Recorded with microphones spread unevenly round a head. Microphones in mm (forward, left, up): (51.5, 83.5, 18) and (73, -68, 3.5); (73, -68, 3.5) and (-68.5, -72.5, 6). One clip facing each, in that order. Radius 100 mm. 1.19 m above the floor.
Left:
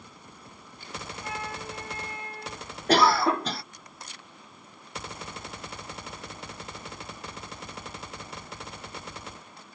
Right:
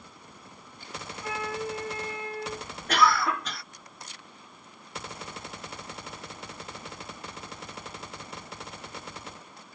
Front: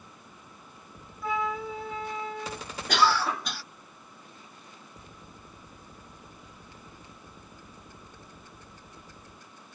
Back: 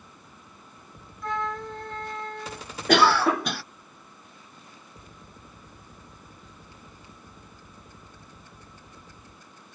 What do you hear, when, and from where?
1.2 s a flute: 85° right
2.9 s a cough: 160° left